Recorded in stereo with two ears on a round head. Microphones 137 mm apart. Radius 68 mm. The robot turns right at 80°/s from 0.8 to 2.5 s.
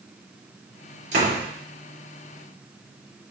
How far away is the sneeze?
No sneeze in this recording.